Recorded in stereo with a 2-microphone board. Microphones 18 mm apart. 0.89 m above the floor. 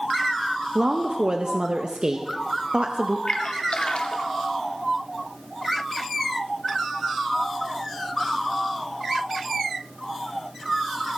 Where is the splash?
75° left (ahead or behind), 1.1 m.